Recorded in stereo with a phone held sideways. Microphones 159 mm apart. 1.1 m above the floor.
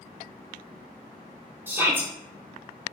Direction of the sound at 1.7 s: 15° right (ahead or behind).